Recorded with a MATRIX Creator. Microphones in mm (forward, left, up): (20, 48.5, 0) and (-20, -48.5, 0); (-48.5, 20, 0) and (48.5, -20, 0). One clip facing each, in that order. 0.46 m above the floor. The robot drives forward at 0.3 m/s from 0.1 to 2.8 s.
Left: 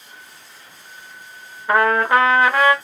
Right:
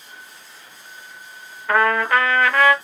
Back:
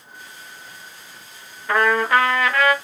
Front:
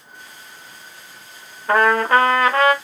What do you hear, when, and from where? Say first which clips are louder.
1.7 s a trumpet: left 2 dB, front 3 dB; 5° left, 0.9 m; by 2.7 s 10° left, 0.7 m